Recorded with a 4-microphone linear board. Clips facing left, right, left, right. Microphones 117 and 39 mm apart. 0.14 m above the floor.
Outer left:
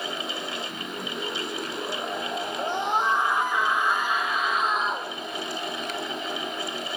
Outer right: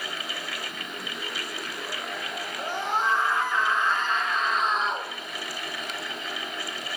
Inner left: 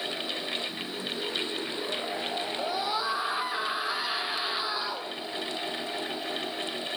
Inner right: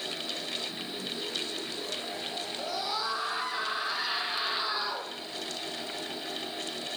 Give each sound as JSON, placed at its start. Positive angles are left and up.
{"t": 2.6, "sound": "a scream", "side_deg": 20, "distance_m": 6.0}